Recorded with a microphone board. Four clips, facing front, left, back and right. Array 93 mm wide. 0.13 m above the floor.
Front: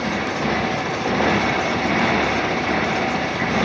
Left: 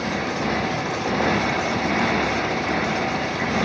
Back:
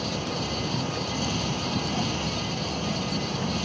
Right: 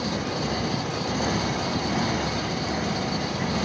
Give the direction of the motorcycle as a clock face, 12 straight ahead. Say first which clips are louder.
Left 3 dB, front 8 dB; 11 o'clock.